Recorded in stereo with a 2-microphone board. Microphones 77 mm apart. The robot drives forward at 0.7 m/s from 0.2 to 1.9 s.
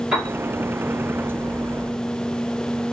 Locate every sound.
0.1 s a piano: 15° right (ahead or behind), 1.8 m; by 0.3 s 20° right (ahead or behind), 1.7 m